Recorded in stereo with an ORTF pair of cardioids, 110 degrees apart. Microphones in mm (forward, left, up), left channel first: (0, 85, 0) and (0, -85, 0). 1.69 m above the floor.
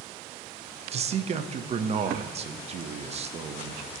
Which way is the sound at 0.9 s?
40° right.